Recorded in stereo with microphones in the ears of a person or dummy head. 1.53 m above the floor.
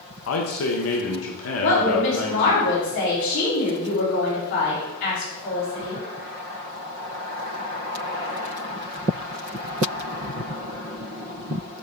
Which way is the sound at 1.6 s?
75° left (ahead or behind).